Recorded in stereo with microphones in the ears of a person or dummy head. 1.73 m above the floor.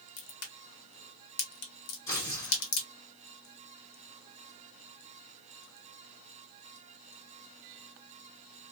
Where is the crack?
65° left (ahead or behind), 1.9 m.